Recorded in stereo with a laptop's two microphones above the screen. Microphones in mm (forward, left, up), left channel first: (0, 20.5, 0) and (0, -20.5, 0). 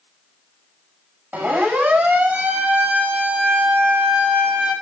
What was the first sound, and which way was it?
A siren, 50° right (ahead or behind).